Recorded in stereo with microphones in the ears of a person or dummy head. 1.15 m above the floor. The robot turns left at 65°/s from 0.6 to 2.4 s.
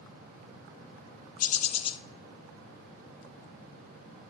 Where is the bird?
70° left, 0.6 m; by 2.0 s 30° left, 0.6 m.